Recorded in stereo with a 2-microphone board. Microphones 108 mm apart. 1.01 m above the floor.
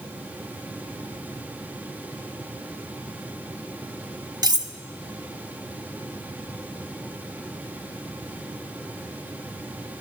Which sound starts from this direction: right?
Cutlery clinking, at 4.4 s.